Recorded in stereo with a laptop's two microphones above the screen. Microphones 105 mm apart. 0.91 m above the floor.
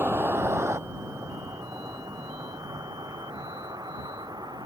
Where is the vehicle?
20° right (ahead or behind); by 4.7 s 40° right (ahead or behind).